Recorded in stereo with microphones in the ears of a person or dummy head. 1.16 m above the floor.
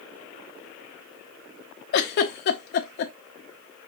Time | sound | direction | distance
1.9 | a giggle | 50° left (ahead or behind) | 0.6 m